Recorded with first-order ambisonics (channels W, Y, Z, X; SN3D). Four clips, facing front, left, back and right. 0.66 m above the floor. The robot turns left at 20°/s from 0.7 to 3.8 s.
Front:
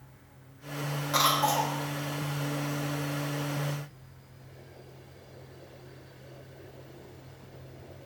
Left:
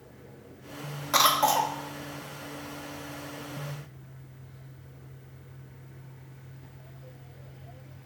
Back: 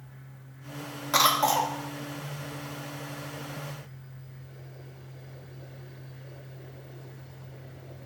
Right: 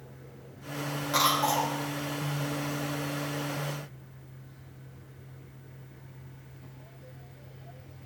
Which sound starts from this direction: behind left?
A cough, at 1.1 s.